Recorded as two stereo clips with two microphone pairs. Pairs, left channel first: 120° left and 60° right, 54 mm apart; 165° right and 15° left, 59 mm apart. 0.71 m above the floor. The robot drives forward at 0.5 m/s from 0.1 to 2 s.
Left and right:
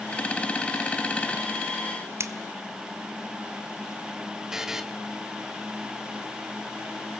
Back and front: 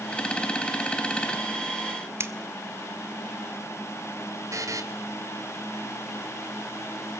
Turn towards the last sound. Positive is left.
turn(degrees=20)